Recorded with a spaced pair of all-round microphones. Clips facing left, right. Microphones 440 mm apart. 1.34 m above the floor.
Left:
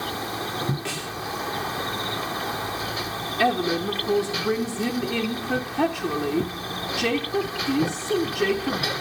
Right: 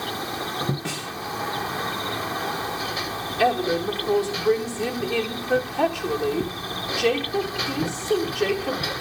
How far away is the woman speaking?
About 1.4 m.